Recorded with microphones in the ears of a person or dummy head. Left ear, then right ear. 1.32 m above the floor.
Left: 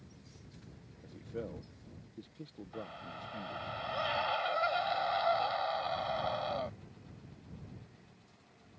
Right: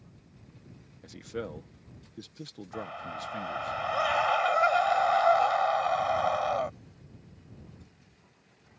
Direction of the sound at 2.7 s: 35° right (ahead or behind).